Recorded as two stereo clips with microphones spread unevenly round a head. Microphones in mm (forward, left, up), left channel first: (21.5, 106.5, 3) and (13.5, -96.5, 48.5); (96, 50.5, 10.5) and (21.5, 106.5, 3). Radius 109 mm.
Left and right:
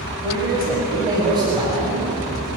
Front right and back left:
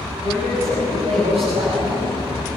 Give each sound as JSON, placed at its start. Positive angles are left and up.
{"t": 0.2, "sound": "a man speaking", "azimuth_deg": -165, "distance_m": 7.0}